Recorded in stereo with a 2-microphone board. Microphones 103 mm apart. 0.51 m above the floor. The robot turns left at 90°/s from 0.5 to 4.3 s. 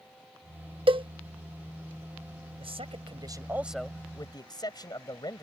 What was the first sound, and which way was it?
A cowbell, 60° right (ahead or behind).